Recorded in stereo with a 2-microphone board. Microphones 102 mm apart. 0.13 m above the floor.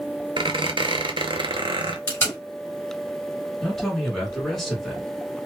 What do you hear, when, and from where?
0.4 s a squeak: 55° right (ahead or behind), 0.5 m
2.1 s tape being pulled: 20° left (ahead or behind), 1.8 m
3.6 s a man speaking: 5° left (ahead or behind), 1.5 m